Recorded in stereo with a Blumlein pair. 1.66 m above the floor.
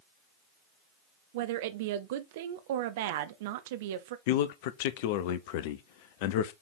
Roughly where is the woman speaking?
Ahead right.